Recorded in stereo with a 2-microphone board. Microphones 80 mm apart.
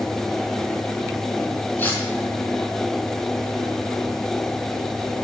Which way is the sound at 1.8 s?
25° left (ahead or behind).